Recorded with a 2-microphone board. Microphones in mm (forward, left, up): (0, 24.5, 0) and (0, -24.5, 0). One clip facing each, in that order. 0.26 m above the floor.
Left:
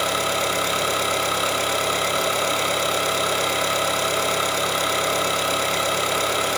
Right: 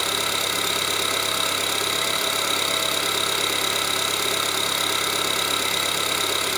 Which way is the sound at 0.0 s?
35° left (ahead or behind).